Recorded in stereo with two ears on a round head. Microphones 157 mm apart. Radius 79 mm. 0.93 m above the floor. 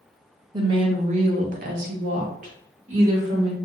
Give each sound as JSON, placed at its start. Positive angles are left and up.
{"t": 0.5, "sound": "a woman speaking", "side_deg": -25, "distance_m": 0.7}